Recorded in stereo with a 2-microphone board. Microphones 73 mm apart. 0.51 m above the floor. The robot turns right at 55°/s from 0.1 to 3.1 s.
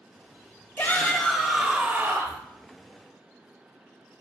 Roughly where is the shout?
Behind left.